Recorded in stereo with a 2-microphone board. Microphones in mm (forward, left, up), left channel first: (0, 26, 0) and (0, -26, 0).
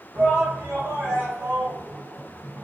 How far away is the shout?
About 1.8 m.